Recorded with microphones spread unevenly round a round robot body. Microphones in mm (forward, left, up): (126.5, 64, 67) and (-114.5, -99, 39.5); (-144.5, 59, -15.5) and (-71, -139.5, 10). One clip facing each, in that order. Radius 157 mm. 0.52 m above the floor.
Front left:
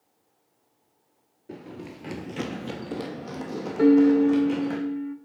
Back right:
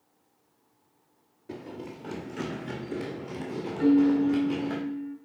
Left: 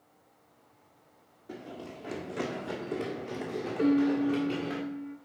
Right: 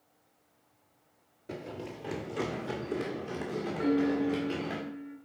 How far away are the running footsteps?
About 0.5 m.